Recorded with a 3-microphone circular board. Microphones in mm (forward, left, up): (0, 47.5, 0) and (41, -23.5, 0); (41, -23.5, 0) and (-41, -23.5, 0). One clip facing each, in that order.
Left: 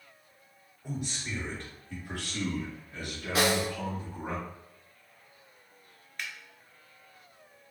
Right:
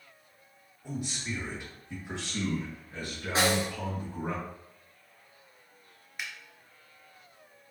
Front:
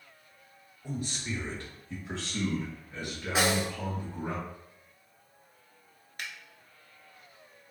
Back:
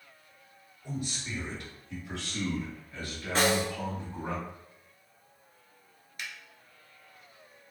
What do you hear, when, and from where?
0.8 s a man speaking: 30° left, 2 m; by 4.3 s 80° right, 2.5 m
3.4 s a snare drum: 75° right, 1.1 m
6.2 s a finger snap: 15° left, 1.2 m